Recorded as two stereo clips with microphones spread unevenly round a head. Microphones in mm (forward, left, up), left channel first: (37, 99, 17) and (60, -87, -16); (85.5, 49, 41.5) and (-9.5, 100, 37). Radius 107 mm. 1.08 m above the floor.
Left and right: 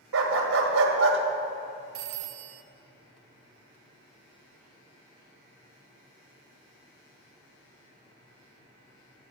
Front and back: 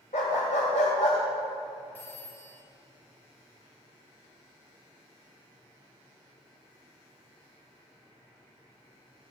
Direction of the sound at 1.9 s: 105° right.